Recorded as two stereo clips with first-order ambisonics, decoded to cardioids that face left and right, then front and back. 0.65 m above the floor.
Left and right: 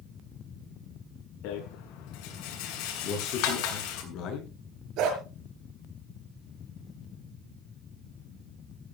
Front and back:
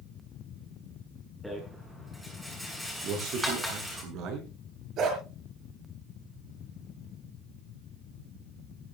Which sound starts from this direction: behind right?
A dog barking, at 5.0 s.